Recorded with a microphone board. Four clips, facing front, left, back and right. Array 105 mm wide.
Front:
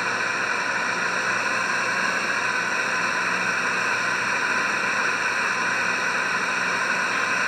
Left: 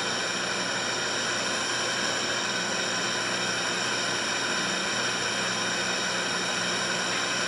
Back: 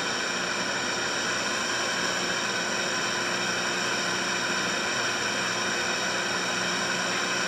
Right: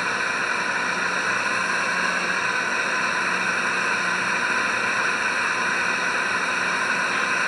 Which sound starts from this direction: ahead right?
A drone, at 0.0 s.